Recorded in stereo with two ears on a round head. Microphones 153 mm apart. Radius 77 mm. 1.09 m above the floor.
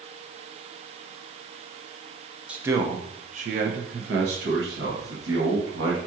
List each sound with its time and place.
2.5 s a man speaking: 5° right (ahead or behind), 0.6 m; by 6.0 s 75° right (ahead or behind), 1.8 m